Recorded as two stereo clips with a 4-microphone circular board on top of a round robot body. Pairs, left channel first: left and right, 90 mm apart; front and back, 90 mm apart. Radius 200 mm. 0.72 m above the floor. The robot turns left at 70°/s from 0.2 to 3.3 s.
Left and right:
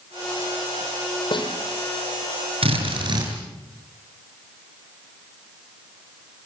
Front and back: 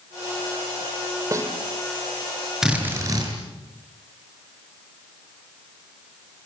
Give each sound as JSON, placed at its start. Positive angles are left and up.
{"t": 1.3, "sound": "a snare drum", "azimuth_deg": 125, "distance_m": 5.0}
{"t": 2.6, "sound": "a drill", "azimuth_deg": -95, "distance_m": 6.5}